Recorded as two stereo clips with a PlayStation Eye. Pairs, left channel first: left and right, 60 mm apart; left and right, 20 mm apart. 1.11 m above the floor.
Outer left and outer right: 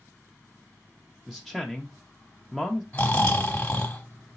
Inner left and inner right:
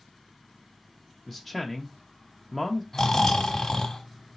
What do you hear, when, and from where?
1.3 s a man speaking: centre (ahead or behind), 0.5 m
2.9 s snoring: 25° left (ahead or behind), 1.1 m